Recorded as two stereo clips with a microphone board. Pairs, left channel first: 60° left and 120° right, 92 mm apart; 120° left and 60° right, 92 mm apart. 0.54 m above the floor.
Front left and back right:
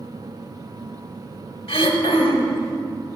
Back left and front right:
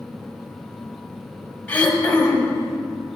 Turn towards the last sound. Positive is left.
turn(degrees=45)